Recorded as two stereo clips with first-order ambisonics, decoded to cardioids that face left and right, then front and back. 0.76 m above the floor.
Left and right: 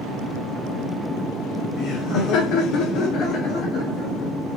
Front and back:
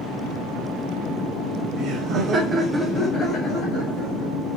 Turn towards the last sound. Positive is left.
turn(degrees=25)